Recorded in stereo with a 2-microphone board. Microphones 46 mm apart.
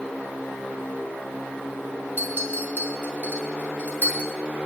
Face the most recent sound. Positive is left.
turn(degrees=-45)  # may be behind; listen again after turning